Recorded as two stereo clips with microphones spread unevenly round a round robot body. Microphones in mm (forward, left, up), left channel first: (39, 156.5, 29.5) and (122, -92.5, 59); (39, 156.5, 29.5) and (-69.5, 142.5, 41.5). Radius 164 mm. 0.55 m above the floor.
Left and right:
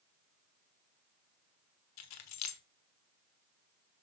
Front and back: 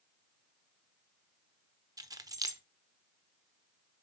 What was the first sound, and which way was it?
Keys jangling, 125° left.